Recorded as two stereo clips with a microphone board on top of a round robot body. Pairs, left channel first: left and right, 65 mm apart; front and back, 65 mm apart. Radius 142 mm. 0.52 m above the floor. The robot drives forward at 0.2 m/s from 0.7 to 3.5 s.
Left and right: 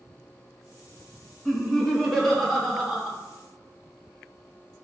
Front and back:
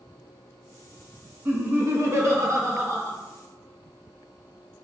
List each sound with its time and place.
1.4 s laughter: 175° left, 1.1 m; by 3.1 s straight behind, 1.3 m